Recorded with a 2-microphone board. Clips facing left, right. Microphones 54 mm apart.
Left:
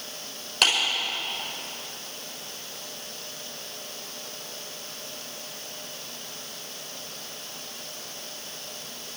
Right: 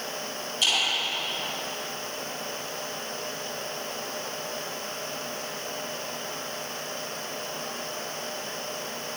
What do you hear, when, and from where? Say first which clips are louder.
0.6 s a clap: left 4 dB; 70° left (ahead or behind), 5.5 m